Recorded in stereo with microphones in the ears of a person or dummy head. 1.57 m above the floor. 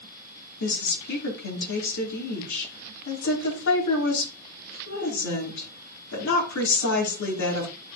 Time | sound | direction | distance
0.6 | a woman speaking | 70° left (ahead or behind) | 3.5 m